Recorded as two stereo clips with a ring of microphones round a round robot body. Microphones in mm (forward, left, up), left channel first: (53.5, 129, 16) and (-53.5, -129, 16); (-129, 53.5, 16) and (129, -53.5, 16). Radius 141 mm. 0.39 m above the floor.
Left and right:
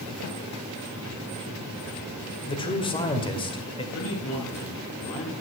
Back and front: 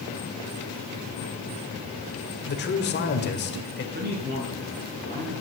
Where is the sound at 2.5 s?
130° left, 1.9 m.